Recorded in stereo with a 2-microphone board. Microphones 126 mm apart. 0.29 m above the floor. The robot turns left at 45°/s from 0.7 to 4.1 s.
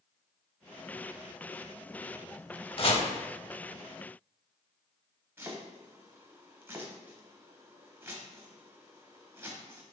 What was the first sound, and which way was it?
Chopping, 50° left (ahead or behind).